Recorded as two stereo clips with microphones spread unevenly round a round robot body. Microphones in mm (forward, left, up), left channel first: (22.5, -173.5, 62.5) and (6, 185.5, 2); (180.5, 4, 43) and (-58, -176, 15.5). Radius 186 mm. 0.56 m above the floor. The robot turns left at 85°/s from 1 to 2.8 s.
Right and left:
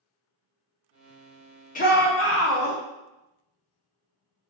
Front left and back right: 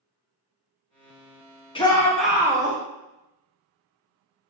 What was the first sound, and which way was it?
A shout, 25° right.